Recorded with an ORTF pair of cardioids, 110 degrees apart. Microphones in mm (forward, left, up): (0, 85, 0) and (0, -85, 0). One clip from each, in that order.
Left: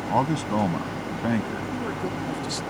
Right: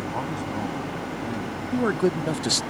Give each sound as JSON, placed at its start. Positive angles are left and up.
{"t": 0.1, "sound": "a man speaking", "azimuth_deg": 55}
{"t": 1.7, "sound": "a man speaking", "azimuth_deg": -45}